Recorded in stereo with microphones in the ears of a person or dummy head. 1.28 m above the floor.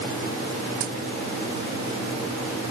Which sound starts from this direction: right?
A dropped coin, at 0.8 s.